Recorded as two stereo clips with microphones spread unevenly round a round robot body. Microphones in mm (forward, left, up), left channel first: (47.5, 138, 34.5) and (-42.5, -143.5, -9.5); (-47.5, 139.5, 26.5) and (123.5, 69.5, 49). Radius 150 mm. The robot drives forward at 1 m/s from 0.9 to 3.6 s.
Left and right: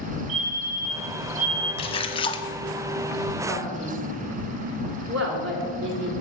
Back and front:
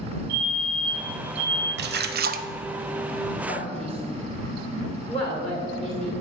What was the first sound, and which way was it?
A fire alarm, 75° right.